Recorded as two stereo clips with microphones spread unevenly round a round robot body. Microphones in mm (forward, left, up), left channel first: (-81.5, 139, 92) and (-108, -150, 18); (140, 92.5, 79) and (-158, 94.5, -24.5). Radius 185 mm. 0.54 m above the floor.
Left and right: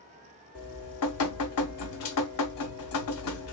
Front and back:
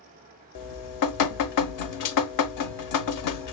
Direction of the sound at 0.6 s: 30° left.